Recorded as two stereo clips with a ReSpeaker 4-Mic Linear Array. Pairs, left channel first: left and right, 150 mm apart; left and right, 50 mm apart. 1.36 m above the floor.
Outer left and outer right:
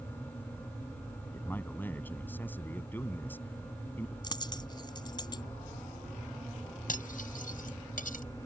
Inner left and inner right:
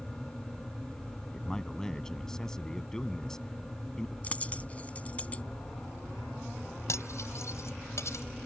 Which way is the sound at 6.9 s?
70° left (ahead or behind).